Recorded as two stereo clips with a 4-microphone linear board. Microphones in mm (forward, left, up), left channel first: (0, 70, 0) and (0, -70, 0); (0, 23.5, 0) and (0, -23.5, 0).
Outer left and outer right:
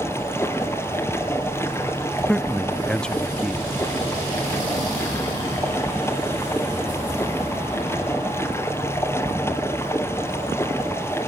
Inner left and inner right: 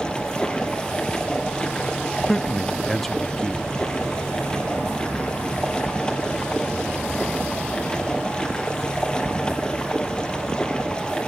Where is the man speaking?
5° left (ahead or behind), 0.5 m.